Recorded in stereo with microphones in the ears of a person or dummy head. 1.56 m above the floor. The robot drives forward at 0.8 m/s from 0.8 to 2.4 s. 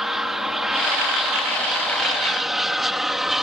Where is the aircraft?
Centre (ahead or behind).